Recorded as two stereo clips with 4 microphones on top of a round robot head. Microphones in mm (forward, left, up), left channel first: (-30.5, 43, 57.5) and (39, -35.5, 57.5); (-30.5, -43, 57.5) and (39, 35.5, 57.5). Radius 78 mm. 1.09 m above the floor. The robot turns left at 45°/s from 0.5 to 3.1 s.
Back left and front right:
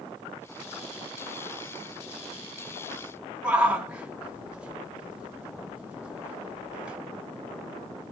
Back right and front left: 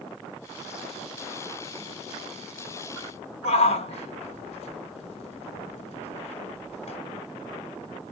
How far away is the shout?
About 3.5 m.